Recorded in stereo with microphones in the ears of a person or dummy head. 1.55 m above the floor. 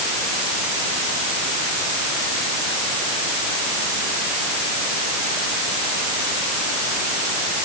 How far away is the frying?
No frying in this recording.